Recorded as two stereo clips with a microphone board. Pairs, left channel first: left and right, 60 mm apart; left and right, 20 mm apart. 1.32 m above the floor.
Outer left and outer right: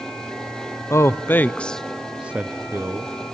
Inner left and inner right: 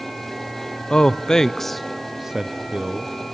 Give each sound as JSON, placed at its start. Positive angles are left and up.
{"t": 0.9, "sound": "a man speaking", "side_deg": 45, "distance_m": 0.7}